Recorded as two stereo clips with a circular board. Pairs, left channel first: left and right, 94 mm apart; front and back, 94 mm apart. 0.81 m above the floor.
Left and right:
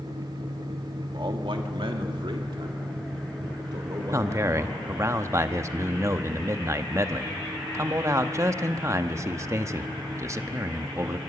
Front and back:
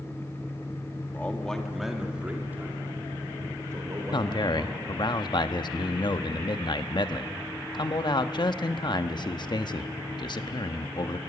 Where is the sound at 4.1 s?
35° right, 0.8 m.